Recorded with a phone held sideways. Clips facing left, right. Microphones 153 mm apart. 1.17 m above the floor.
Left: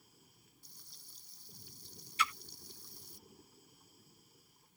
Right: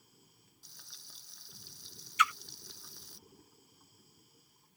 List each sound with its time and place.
0.6 s frying: 80° right
2.2 s a splash: 30° left (ahead or behind)